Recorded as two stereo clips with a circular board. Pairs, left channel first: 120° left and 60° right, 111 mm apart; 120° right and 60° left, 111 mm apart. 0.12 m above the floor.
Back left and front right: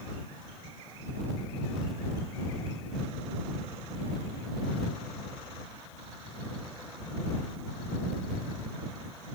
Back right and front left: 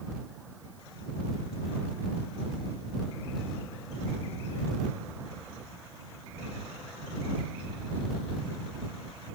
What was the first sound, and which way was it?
Only background noise.